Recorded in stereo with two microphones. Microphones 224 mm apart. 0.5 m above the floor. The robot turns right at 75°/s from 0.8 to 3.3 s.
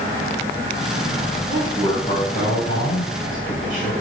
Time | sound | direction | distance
1.5 | a man speaking | 25° right | 7 m